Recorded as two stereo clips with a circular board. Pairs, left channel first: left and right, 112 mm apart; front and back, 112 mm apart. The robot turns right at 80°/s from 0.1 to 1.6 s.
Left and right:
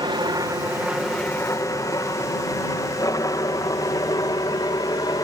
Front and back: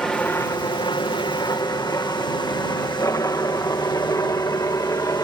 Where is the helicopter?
80° right; by 5.2 s 50° left.